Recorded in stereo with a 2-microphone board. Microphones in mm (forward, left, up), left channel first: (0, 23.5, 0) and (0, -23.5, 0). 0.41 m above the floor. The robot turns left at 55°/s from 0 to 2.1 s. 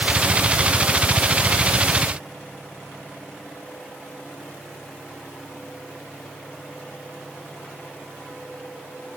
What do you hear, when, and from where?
Only background noise.